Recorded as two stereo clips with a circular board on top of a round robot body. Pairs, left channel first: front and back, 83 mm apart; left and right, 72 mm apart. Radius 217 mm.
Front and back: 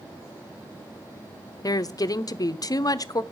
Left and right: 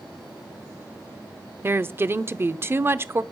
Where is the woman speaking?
35° right, 0.8 m.